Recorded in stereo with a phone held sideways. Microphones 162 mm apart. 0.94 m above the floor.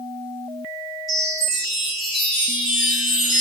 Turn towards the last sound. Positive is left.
turn(degrees=0)  # may be behind; listen again after turning